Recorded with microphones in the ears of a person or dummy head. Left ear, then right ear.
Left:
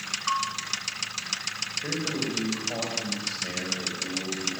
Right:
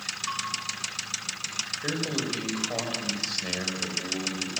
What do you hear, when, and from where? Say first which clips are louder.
0.3 s a bell: left 6 dB; 25° left (ahead or behind), 3.5 m
1.8 s a man speaking: even; 25° right (ahead or behind), 6 m